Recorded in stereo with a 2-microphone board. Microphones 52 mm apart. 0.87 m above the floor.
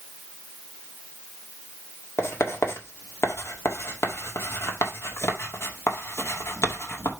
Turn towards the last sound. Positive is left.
turn(degrees=60)  # may be behind; listen again after turning